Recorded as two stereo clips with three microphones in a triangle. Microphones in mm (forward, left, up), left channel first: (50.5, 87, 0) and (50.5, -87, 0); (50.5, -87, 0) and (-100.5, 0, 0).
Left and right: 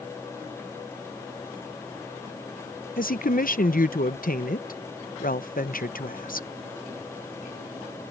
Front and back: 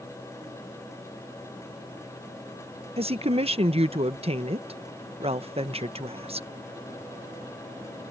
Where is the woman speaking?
105° left.